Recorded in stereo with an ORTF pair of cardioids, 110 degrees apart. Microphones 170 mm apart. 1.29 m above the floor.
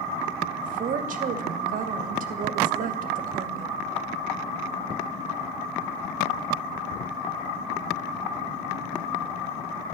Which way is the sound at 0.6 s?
55° right.